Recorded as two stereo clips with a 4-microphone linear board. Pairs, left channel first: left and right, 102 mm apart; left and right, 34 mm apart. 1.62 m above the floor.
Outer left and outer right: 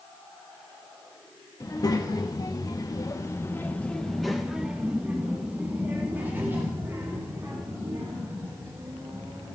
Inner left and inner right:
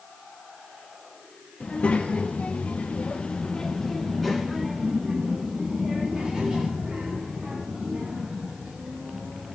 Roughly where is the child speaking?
Left.